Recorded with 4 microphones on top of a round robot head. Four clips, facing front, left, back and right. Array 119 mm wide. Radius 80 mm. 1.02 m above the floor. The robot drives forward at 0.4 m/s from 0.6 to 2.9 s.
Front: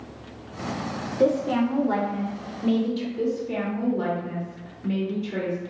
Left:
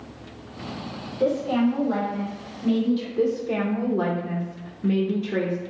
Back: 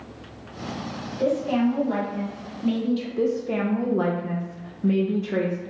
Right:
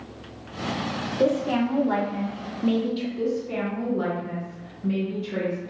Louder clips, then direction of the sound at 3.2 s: Left 3 dB, back 3 dB; 150° left.